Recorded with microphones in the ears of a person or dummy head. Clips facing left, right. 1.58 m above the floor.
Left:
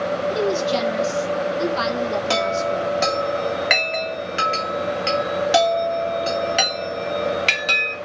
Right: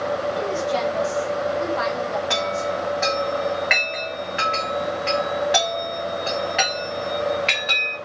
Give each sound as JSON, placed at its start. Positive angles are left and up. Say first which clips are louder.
{"t": 0.3, "sound": "a woman speaking", "louder": "left 3 dB", "side_deg": 50, "distance_m": 1.5}
{"t": 2.3, "sound": "a chime", "louder": "left 3 dB", "side_deg": 55, "distance_m": 1.9}